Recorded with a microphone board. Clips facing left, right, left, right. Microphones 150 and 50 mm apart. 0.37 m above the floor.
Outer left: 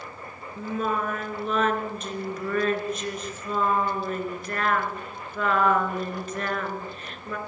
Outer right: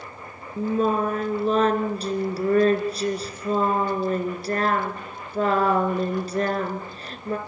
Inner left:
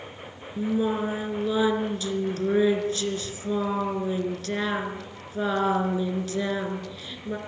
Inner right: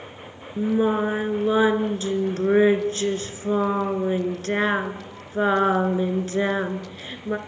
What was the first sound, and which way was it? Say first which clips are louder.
Singing: outer right 6 dB, inner right 4 dB; 35° right (ahead or behind).